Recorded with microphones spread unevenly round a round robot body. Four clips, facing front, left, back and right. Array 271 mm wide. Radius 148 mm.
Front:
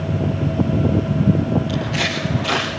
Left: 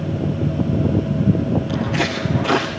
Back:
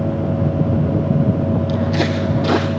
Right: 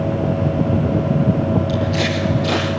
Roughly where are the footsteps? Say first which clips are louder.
Right 2 dB, back 5 dB; behind.